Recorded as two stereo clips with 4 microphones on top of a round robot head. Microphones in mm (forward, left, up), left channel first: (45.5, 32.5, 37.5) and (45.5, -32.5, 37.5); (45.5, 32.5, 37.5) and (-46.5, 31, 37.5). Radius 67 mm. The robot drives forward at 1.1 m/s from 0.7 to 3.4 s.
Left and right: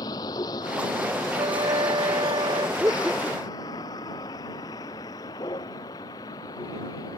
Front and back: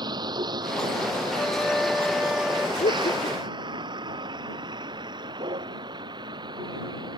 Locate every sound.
0.0 s a vehicle: 135° left; by 7.2 s 140° left
1.3 s a flute: 85° right; by 2.7 s 95° right
2.8 s laughter: 20° right; by 3.7 s 25° right